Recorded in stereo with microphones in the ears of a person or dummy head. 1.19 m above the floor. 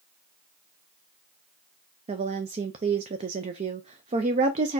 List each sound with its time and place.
2.1 s a woman speaking: 35° right (ahead or behind), 0.5 m